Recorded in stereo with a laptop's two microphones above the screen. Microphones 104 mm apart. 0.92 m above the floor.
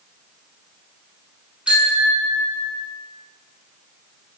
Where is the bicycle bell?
10° right (ahead or behind), 7 m.